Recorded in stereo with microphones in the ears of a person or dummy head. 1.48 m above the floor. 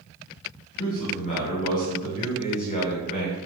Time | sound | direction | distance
0.8 | a man speaking | 40° left (ahead or behind) | 1.2 m